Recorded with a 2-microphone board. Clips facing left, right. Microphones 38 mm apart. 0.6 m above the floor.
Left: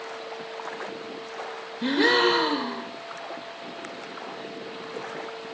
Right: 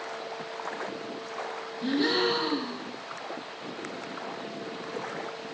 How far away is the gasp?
About 0.7 m.